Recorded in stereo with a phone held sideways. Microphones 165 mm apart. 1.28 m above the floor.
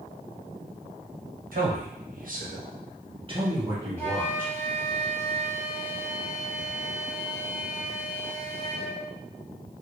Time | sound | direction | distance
1.5 | a man speaking | 60° right (ahead or behind) | 0.9 m
4.0 | a flute | 10° left (ahead or behind) | 1.9 m